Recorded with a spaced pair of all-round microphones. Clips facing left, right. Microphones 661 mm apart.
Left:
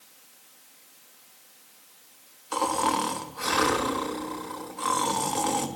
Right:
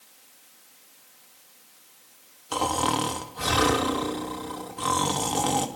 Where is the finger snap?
No finger snap in this recording.